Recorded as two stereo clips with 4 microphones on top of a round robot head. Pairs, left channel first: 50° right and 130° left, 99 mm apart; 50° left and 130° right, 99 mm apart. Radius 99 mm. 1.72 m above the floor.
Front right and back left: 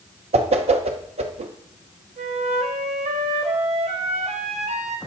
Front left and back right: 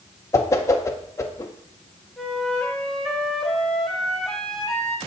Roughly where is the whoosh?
Behind left.